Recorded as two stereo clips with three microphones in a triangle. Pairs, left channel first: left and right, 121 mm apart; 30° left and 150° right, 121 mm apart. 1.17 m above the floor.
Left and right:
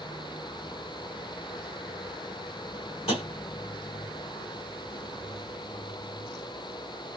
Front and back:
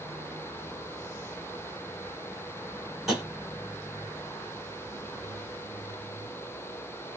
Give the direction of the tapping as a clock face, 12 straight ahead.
8 o'clock.